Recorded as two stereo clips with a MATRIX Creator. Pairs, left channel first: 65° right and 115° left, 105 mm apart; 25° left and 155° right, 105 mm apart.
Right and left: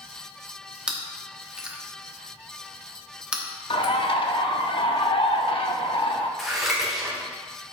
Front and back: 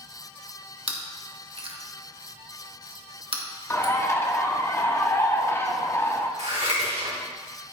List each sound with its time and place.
0.9 s chewing: 170° right, 1.3 m
3.7 s a bird: 40° right, 1.0 m
6.4 s scissors: 160° right, 3 m